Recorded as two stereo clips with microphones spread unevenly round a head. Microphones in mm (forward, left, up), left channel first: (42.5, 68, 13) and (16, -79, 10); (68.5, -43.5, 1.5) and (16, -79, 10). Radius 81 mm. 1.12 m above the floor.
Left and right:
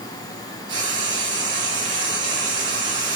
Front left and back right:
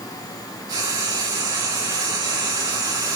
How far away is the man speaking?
No man speaking in this recording.